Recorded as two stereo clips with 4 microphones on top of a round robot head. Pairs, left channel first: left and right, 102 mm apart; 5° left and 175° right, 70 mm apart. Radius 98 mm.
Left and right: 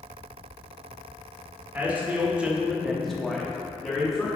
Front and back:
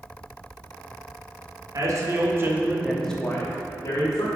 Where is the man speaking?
160° right, 1.6 m; by 4.3 s 20° left, 1.7 m.